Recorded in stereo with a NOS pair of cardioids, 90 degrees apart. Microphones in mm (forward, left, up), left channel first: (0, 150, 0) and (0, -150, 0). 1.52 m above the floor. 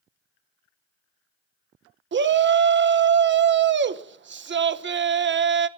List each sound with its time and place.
2.1 s a shout: 40° right, 1.0 m